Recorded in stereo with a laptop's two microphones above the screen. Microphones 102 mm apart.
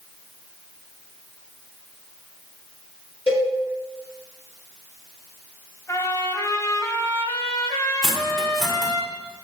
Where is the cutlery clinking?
Centre (ahead or behind), 1.5 m.